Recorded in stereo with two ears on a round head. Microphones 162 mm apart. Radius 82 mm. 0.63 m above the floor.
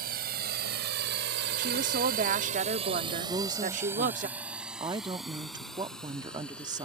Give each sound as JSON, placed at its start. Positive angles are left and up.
{"t": 0.0, "sound": "a drone", "side_deg": -55}
{"t": 1.6, "sound": "a woman speaking", "side_deg": -45}
{"t": 3.3, "sound": "a woman speaking", "side_deg": -25}